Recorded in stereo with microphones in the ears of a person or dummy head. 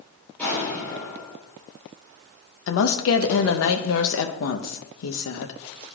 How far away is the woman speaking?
About 0.7 m.